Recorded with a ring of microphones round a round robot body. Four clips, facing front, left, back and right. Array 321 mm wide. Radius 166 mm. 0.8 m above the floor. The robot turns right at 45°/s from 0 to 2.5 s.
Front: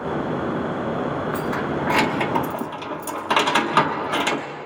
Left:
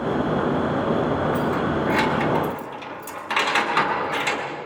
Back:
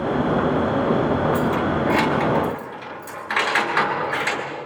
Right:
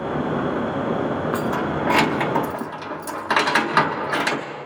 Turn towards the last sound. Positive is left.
turn(degrees=-35)